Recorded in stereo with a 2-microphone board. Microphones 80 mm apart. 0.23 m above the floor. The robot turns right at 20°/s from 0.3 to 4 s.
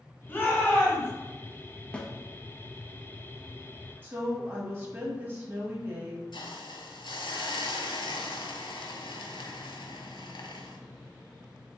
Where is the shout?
25° left (ahead or behind), 1.9 m; by 1.1 s 30° left (ahead or behind), 1.9 m.